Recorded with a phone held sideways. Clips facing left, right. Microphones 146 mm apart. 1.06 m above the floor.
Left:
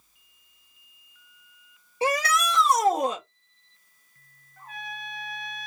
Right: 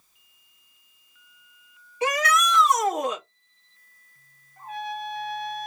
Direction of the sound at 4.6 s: 30° right (ahead or behind).